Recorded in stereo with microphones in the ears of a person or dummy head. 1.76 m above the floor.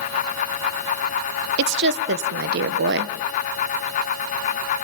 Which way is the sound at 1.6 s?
60° right (ahead or behind).